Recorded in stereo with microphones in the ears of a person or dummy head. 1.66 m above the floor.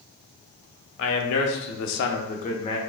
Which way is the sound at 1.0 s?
70° left (ahead or behind).